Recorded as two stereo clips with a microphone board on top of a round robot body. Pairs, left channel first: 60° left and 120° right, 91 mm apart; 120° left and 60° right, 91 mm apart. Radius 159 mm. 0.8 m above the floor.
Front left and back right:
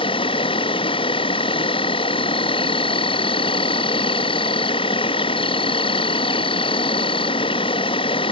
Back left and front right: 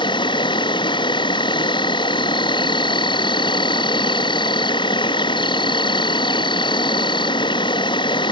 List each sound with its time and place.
0.0 s an insect: 85° left